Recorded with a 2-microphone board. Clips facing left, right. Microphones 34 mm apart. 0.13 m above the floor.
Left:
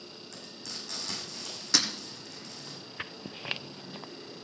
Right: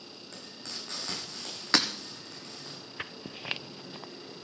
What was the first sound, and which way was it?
Frying, 40° right (ahead or behind).